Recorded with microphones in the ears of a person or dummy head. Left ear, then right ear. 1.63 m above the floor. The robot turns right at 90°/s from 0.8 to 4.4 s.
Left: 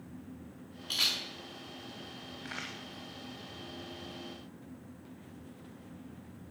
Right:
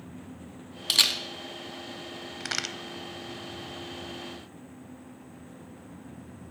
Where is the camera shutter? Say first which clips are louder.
Right 7 dB; 60° right (ahead or behind), 0.9 m; by 1.2 s 50° right (ahead or behind), 0.9 m.